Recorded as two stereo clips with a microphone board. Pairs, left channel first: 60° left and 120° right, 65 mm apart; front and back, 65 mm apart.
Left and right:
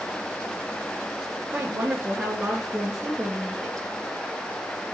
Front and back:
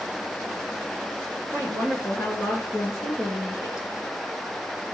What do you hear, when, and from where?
1.5 s a woman speaking: 50° right, 2.5 m; by 3.9 s 20° right, 2.5 m